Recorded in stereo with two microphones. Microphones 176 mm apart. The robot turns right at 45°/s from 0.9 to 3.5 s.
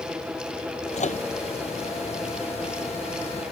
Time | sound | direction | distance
1.0 | a microwave | 45° left (ahead or behind) | ?